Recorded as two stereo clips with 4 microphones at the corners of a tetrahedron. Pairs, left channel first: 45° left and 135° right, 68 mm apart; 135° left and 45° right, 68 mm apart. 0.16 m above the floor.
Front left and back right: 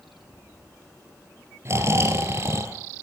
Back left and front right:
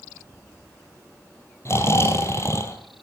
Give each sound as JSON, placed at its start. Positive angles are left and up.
{"t": 1.6, "sound": "snoring", "azimuth_deg": 180, "distance_m": 1.6}